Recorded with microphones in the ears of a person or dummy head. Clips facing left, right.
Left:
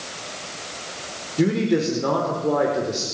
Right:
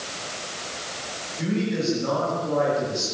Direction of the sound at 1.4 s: 75° left (ahead or behind).